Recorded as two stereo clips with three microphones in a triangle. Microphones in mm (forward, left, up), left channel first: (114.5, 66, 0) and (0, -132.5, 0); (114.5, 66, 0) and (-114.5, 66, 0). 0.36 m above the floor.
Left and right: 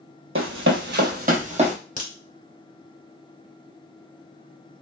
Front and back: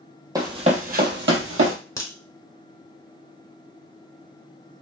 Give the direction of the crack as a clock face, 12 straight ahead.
10 o'clock.